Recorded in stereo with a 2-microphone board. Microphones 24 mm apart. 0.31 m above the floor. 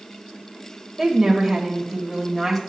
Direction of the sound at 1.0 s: 5° right (ahead or behind).